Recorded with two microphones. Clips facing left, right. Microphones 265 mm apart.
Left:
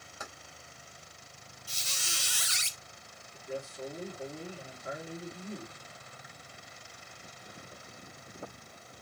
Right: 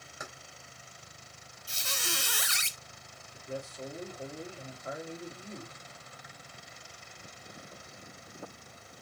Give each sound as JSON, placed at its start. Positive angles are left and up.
{"t": 0.2, "sound": "keys jangling", "side_deg": -15, "distance_m": 2.5}
{"t": 1.7, "sound": "a squeak", "side_deg": -65, "distance_m": 0.6}
{"t": 3.3, "sound": "a man speaking", "side_deg": 15, "distance_m": 3.5}